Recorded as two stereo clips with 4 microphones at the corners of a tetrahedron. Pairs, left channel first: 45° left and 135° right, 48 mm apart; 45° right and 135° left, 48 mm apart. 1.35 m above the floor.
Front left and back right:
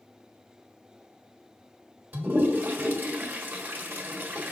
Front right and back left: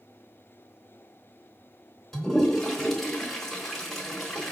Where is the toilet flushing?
125° right, 1.4 m.